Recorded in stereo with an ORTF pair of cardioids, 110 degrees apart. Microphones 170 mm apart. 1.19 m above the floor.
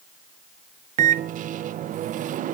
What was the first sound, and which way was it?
A microwave, 50° right.